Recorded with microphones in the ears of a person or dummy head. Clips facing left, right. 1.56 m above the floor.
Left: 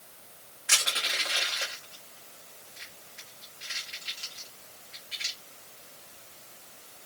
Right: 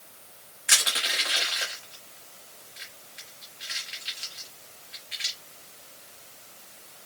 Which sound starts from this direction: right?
Crushing, at 0.7 s.